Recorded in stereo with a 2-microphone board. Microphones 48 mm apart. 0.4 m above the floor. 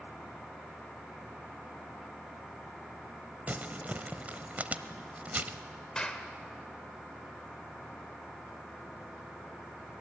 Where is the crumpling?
35° right (ahead or behind), 0.8 m.